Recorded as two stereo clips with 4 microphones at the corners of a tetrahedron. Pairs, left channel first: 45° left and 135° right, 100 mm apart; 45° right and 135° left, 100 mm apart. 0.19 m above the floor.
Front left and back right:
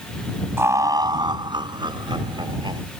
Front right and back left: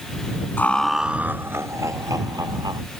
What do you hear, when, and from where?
0.6 s laughter: 95° right; by 2.8 s 175° right